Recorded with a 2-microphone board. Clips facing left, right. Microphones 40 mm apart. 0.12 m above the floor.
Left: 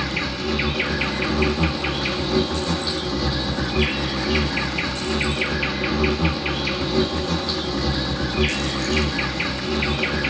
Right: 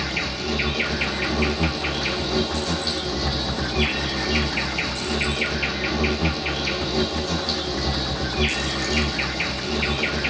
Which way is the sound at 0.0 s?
20° left (ahead or behind).